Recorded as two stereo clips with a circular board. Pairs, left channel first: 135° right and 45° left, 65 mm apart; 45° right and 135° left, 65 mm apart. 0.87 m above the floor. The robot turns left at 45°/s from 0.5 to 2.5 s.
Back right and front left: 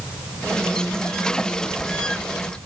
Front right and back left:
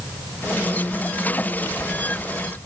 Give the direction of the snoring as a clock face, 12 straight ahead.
No snoring in this recording.